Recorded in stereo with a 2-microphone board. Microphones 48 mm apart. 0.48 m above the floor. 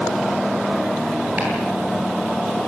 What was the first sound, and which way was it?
Chopping, 40° right (ahead or behind).